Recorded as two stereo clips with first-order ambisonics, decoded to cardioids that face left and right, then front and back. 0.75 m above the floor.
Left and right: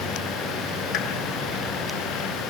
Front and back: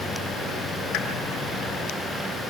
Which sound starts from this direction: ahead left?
A pop, at 0.9 s.